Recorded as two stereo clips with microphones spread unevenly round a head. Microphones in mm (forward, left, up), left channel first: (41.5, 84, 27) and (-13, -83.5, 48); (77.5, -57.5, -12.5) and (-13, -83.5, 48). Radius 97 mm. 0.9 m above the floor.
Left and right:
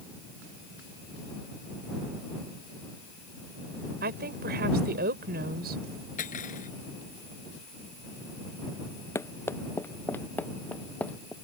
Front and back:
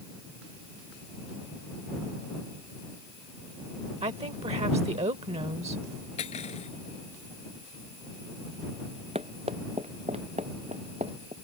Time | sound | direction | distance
4.0 | a woman speaking | 145° right | ?
6.2 | cutlery clinking | 25° left | ?
9.2 | running footsteps | 150° left | ?